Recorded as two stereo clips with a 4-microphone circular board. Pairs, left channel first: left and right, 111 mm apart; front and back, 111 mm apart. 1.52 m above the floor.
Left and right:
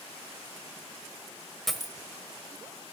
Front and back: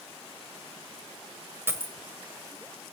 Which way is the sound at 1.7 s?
175° left.